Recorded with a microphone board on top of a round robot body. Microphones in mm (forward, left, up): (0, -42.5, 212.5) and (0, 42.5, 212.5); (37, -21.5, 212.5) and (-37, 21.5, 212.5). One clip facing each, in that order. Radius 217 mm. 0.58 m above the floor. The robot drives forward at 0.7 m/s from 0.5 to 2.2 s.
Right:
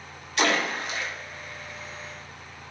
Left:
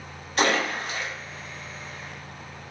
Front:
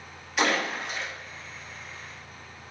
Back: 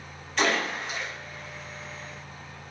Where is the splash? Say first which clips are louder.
Left 1 dB, even; 50° left, 1.5 m; by 1.1 s 70° left, 1.4 m.